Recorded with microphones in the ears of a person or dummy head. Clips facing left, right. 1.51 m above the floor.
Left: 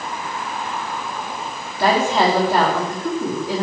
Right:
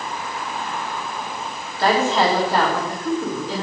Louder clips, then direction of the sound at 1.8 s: Left 1 dB; 15° left (ahead or behind).